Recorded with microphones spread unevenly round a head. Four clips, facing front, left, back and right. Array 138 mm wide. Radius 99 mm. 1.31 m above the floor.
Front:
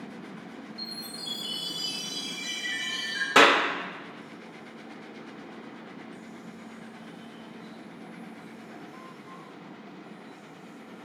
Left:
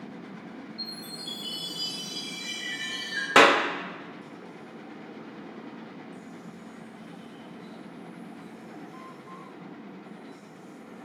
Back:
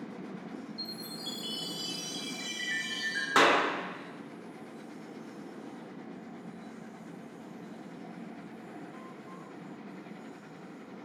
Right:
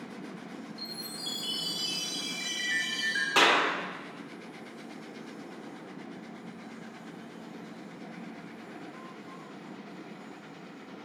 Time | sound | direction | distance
0.8 | a chime | 135° right | 6 m
3.4 | a clap | 85° left | 1.4 m